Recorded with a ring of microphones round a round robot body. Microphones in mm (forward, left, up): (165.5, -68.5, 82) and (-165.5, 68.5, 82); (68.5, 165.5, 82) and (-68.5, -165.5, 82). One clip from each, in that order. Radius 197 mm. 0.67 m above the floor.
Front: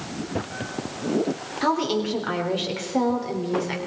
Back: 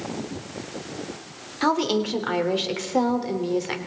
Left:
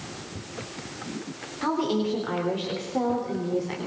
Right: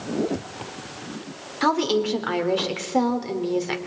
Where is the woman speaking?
135° right, 3 m.